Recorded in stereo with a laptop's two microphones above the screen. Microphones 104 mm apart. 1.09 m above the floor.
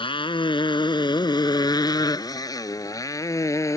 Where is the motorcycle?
55° left (ahead or behind); by 3.8 s 30° left (ahead or behind).